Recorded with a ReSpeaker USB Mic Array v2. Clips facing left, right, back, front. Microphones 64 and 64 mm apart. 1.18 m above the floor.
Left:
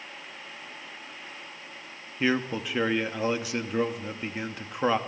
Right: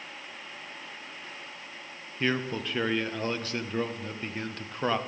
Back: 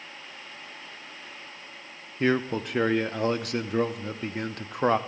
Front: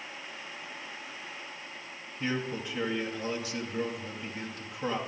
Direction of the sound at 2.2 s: 170° left.